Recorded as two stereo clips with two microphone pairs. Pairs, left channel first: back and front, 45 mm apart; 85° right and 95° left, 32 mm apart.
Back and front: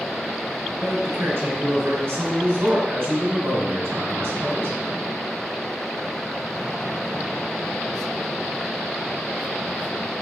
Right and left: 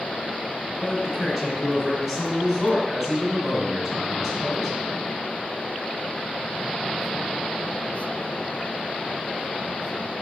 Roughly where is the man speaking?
Ahead left.